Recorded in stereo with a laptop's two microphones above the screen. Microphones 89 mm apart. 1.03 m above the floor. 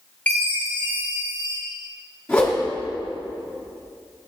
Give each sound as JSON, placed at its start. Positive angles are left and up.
{"t": 0.3, "sound": "a chime", "side_deg": 15, "distance_m": 1.4}
{"t": 2.3, "sound": "a whoosh", "side_deg": 10, "distance_m": 2.5}